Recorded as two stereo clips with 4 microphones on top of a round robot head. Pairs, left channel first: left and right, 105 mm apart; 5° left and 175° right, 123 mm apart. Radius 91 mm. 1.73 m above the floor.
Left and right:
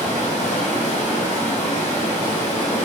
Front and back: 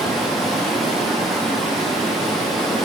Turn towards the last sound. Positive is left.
turn(degrees=95)